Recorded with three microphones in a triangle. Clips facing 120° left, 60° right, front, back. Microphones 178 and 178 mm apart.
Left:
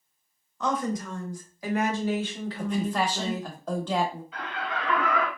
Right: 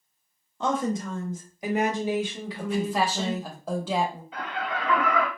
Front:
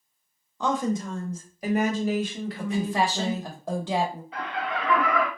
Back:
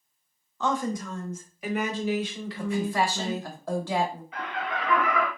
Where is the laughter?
40° right, 1.3 m.